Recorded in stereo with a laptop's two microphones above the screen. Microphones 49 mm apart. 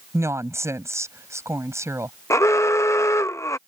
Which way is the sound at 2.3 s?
85° left.